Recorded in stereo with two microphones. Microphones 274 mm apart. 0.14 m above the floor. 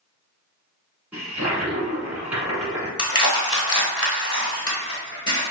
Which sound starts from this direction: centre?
A toilet flushing, at 1.1 s.